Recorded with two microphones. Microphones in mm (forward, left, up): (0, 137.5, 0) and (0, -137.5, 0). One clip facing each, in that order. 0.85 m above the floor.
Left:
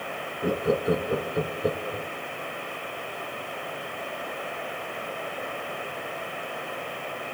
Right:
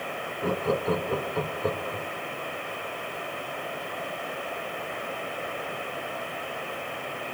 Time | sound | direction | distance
0.4 | laughter | 15° left (ahead or behind) | 0.5 m